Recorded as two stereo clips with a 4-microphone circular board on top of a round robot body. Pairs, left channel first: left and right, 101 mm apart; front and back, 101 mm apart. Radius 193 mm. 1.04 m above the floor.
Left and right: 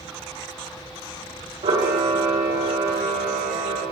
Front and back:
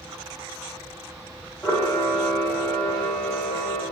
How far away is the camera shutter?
About 2 m.